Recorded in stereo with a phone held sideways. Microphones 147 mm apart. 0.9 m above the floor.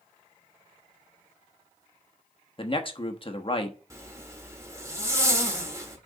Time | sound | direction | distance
2.6 | a man speaking | 40° left (ahead or behind) | 1.0 m
3.9 | a zipper | 20° right (ahead or behind) | 1.6 m